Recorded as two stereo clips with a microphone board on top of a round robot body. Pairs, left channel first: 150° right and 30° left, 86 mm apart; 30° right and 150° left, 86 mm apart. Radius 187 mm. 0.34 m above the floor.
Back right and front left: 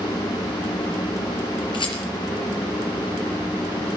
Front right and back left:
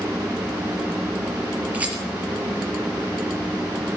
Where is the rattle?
135° right, 4.5 m.